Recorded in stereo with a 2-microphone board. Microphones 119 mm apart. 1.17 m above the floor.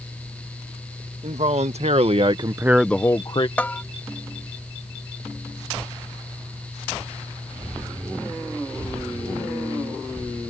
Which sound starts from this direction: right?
A man speaking, at 1.2 s.